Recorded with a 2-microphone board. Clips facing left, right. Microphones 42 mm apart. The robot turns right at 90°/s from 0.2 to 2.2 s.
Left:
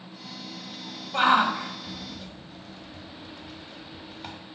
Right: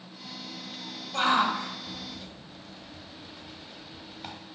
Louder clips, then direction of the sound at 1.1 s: Left 4 dB; 25° left (ahead or behind).